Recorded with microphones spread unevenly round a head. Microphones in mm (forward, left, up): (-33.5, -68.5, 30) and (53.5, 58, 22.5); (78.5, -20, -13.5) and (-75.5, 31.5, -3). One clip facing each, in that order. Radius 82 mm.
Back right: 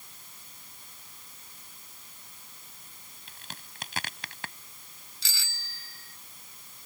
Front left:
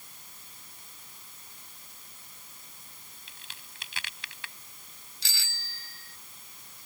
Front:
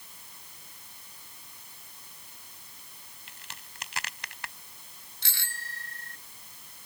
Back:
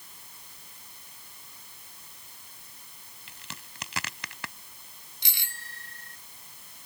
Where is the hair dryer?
No hair dryer in this recording.